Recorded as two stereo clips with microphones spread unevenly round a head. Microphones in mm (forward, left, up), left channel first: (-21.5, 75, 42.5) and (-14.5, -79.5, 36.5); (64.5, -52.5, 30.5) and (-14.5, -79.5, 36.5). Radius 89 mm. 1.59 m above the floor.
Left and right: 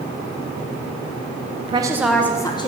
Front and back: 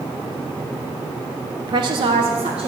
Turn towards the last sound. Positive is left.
turn(degrees=150)